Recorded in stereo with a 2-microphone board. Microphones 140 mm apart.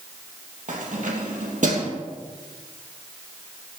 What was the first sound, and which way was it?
Keys jangling, 65° right (ahead or behind).